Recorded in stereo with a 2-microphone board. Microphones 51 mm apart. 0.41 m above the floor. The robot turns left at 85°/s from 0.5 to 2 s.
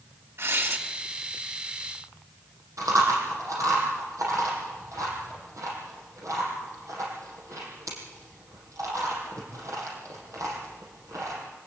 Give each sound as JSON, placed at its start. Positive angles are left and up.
{"t": 0.4, "sound": "tearing paper", "side_deg": -60, "distance_m": 2.5}
{"t": 2.8, "sound": "chewing", "side_deg": -80, "distance_m": 7.0}